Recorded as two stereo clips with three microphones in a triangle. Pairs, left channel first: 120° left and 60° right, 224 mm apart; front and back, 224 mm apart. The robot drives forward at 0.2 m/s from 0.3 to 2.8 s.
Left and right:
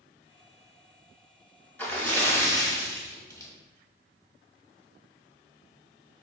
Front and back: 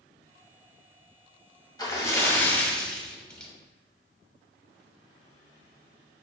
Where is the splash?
50° left, 0.8 m; by 3.5 s 80° left, 0.8 m.